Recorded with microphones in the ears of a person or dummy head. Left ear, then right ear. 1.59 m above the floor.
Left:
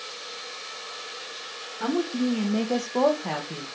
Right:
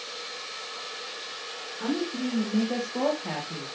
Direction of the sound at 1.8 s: 35° left (ahead or behind).